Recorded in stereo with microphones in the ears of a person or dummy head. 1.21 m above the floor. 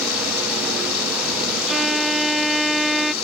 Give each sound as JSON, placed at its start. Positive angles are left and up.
{"t": 0.0, "sound": "running water", "side_deg": 70}
{"t": 1.7, "sound": "a violin", "side_deg": -5}